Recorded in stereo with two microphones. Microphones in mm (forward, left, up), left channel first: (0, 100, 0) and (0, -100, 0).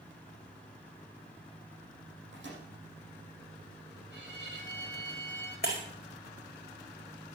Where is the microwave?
70° right (ahead or behind), 6 m.